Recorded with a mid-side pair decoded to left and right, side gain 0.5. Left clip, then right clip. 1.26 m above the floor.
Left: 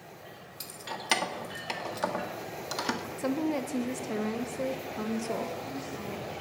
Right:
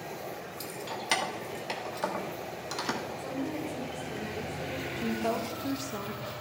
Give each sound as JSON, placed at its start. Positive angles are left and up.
{"t": 0.6, "sound": "keys jangling", "azimuth_deg": 15, "distance_m": 1.3}
{"t": 3.2, "sound": "a woman speaking", "azimuth_deg": 70, "distance_m": 1.1}
{"t": 5.0, "sound": "a woman speaking", "azimuth_deg": -65, "distance_m": 1.6}